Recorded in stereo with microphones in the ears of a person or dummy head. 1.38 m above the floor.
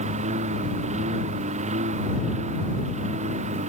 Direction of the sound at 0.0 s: 35° right (ahead or behind).